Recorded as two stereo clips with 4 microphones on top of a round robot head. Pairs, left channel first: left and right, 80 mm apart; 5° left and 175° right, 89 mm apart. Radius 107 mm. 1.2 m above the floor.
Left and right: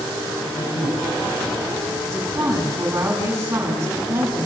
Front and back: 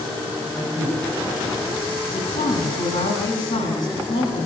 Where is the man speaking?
75° left, 7 m.